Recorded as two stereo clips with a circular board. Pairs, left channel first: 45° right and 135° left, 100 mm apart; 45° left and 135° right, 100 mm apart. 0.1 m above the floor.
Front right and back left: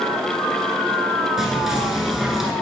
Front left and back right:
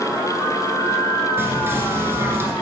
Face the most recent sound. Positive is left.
turn(degrees=-145)